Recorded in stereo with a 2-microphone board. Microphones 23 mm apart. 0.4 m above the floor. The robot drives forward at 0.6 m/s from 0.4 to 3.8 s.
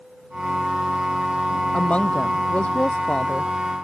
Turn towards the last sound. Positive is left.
turn(degrees=70)  # may be behind; listen again after turning